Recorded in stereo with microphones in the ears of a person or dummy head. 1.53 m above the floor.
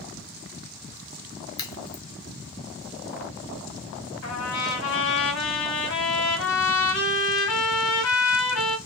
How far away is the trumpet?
About 3 m.